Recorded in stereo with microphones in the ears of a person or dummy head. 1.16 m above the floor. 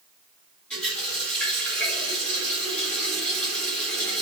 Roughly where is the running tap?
Centre.